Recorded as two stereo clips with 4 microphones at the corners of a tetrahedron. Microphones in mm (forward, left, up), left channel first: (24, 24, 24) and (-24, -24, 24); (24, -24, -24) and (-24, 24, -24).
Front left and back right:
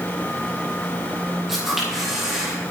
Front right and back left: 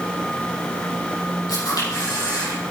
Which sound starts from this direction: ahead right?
A camera shutter, at 1.5 s.